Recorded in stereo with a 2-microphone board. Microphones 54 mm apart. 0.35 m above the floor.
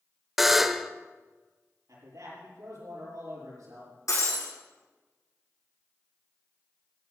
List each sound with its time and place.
0.4 s a buzzer: 5° right (ahead or behind), 0.6 m
1.9 s a man speaking: 80° right, 7 m
4.1 s breaking glass: 80° left, 6 m